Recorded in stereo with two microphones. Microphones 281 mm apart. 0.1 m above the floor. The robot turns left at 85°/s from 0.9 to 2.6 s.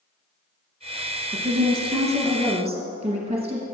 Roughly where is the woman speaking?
Ahead right.